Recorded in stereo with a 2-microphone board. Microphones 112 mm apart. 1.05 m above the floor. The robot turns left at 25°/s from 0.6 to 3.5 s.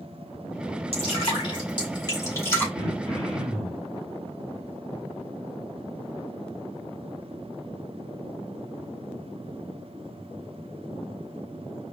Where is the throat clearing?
20° left (ahead or behind), 1.5 m; by 3.9 s 5° left (ahead or behind), 1.5 m.